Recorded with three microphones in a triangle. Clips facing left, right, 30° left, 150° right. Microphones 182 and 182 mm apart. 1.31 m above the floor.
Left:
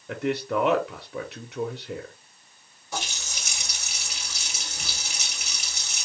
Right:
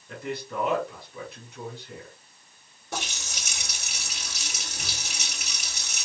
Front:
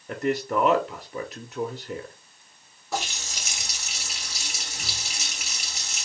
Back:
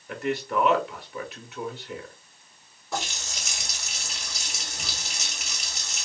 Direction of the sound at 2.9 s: 60° right.